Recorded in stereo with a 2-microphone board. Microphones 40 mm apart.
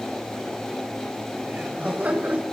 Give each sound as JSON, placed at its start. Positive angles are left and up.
{"t": 1.4, "sound": "laughter", "side_deg": -40, "distance_m": 6.5}